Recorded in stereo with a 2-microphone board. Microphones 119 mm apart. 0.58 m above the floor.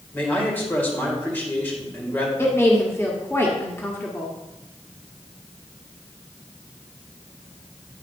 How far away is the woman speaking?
About 1.1 m.